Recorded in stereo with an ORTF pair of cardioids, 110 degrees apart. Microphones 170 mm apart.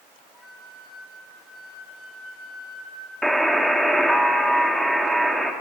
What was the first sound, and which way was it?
A flute, straight ahead.